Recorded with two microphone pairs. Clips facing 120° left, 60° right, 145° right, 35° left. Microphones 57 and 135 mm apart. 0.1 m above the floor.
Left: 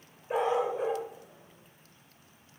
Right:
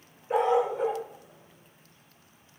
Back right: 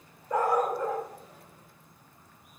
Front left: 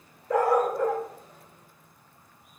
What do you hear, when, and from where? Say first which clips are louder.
0.3 s a dog barking: right 4 dB, front left 3 dB; 35° left, 4 m